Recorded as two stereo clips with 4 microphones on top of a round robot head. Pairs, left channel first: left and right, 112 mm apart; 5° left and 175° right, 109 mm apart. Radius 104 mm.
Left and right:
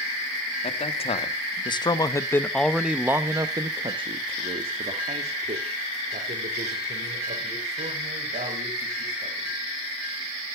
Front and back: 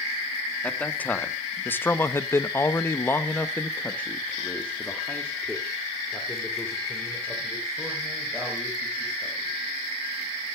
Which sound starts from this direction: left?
A man speaking, at 0.6 s.